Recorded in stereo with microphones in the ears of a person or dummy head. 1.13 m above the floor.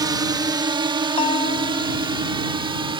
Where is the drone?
20° right (ahead or behind); by 3.0 s 25° right (ahead or behind).